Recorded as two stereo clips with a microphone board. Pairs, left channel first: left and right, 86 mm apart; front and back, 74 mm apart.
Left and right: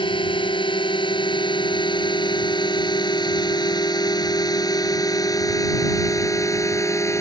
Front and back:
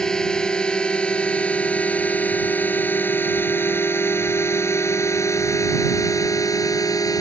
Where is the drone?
80° left; by 7.2 s 35° left.